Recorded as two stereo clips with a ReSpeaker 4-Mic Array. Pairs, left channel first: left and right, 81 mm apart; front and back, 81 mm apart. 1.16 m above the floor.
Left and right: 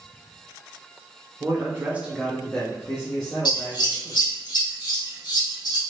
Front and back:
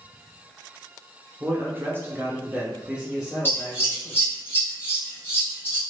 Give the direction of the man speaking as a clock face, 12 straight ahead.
4 o'clock.